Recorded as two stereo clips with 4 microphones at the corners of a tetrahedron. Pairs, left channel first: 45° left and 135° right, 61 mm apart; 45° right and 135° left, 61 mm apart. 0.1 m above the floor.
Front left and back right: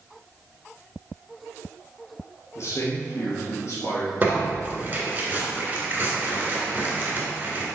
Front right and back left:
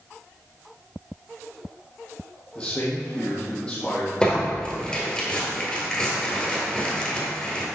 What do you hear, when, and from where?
2.5 s a man speaking: 25° left, 2.5 m
4.2 s tearing paper: 110° right, 2.0 m